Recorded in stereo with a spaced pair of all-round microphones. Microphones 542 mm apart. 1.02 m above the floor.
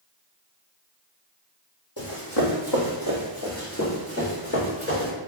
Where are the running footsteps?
50° left (ahead or behind), 1.7 m; by 5.1 s 20° left (ahead or behind), 3.5 m.